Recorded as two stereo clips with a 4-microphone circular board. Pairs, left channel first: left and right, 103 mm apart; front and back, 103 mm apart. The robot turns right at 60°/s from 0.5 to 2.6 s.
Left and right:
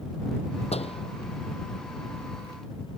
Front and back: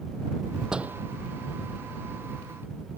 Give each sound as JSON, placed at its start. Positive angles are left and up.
{"t": 0.7, "sound": "a door slam", "azimuth_deg": 95}